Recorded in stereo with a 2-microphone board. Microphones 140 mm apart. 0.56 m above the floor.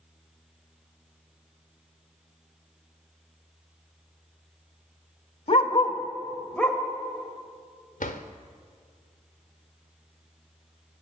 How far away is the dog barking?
About 0.8 m.